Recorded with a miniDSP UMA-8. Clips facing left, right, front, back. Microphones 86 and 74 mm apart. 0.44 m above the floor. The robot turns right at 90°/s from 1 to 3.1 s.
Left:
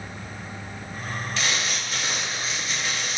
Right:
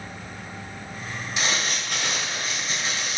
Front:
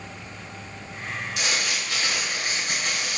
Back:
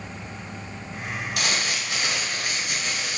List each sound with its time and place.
1.4 s crumpling: 160° right, 3.5 m; by 3.2 s 5° right, 3.5 m